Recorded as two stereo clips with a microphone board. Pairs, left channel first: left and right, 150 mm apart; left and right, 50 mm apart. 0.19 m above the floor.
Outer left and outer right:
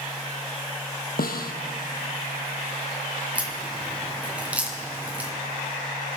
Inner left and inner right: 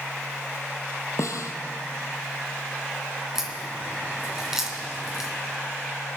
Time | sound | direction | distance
1.2 | a snare drum | 85° left | 1.2 m
3.4 | a crack | 10° right (ahead or behind) | 2 m